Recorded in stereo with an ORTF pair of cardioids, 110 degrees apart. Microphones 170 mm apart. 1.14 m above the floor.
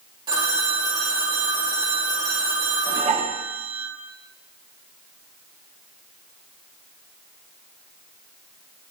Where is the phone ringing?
25° right, 2.5 m.